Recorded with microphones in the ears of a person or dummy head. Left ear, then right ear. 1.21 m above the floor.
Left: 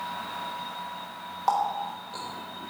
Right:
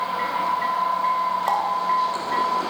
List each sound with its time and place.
1.5 s a running tap: 15° right (ahead or behind), 1.0 m